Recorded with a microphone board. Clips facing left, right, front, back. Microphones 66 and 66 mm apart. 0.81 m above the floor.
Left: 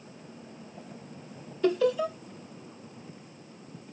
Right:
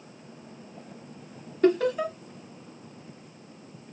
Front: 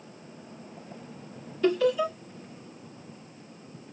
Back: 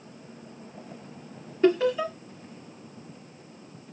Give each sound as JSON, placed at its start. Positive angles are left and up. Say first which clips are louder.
{"t": 1.6, "sound": "laughter", "louder": "right 2 dB, back 2 dB", "azimuth_deg": -120, "distance_m": 2.5}